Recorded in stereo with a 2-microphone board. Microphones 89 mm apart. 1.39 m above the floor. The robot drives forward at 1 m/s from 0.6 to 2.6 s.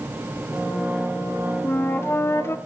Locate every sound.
1.6 s a flute: 20° left (ahead or behind), 1.2 m; by 2.6 s 30° left (ahead or behind), 0.9 m